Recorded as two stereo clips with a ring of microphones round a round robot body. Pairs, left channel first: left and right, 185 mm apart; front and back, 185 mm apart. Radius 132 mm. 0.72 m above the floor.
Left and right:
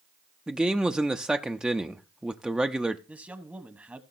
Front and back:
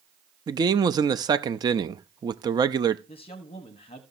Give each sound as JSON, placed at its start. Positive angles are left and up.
{"t": 0.5, "sound": "a man speaking", "azimuth_deg": -165, "distance_m": 0.5}
{"t": 3.1, "sound": "a man speaking", "azimuth_deg": -15, "distance_m": 1.1}